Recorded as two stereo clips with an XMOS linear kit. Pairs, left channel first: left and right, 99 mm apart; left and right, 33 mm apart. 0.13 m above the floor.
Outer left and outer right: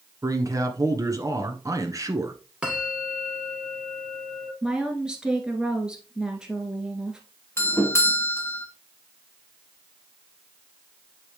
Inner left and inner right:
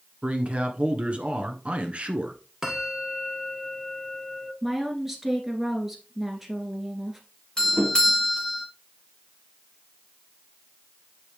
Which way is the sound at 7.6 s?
25° left (ahead or behind).